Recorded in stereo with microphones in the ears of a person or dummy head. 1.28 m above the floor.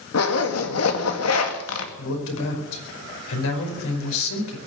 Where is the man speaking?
75° left (ahead or behind), 5 m.